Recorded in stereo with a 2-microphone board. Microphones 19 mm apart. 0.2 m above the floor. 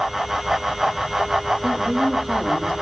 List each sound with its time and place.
1.6 s a woman speaking: 25° right (ahead or behind), 10 m; by 2.7 s 20° right (ahead or behind), 10 m